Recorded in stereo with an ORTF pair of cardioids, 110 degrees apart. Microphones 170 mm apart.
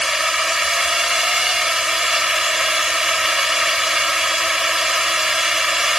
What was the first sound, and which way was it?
A drone, straight ahead.